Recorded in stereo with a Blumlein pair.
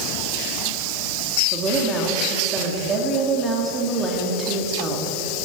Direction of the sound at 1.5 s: 20° right.